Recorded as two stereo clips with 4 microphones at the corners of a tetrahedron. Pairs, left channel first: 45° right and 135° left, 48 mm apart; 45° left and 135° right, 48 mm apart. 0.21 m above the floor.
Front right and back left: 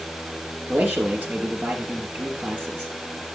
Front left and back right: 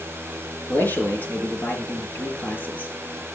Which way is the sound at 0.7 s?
90° left.